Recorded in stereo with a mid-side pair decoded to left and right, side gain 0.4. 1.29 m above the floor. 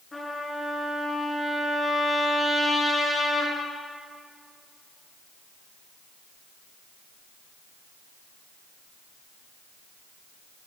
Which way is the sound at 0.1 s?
25° left.